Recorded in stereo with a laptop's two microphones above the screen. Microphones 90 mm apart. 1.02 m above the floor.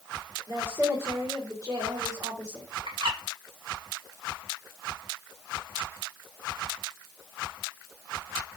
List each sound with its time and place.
0.5 s a woman speaking: 50° right (ahead or behind), 3 m
2.9 s a bird: 75° right (ahead or behind), 1.8 m